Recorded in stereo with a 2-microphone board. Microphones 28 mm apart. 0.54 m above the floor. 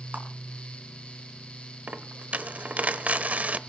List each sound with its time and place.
0.1 s a clap: 75° right (ahead or behind), 4 m
1.9 s a dropped coin: 65° right (ahead or behind), 0.9 m